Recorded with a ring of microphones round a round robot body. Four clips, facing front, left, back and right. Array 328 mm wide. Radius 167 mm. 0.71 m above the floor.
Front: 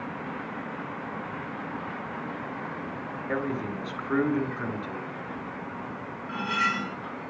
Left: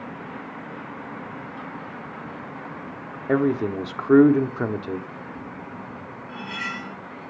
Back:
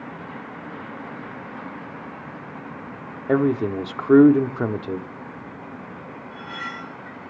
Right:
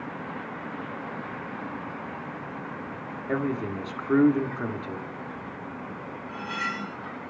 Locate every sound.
3.3 s a man speaking: 150° left, 1.7 m
6.3 s cutlery clinking: 5° left, 5 m